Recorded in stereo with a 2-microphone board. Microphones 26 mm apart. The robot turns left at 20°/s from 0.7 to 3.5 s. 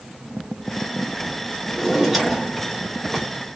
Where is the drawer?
5° left (ahead or behind), 1.2 m; by 3.3 s 5° right (ahead or behind), 1.2 m.